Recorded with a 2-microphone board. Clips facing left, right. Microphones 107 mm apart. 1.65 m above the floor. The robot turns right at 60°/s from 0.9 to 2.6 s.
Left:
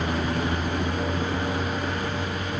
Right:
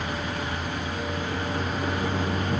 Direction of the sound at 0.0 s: 130° left.